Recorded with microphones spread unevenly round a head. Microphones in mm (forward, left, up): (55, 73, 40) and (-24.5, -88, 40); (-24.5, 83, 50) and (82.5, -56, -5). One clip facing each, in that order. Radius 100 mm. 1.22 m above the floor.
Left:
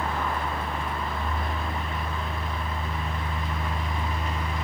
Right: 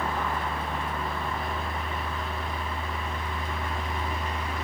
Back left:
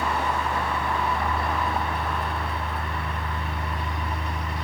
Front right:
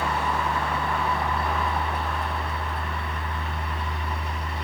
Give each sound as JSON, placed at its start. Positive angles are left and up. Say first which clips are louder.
{"t": 0.0, "sound": "a fan", "louder": "left 1 dB, even", "azimuth_deg": 110, "distance_m": 2.5}